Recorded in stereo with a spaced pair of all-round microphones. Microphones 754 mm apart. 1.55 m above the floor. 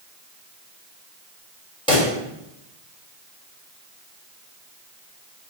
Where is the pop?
5° left (ahead or behind), 1.4 m.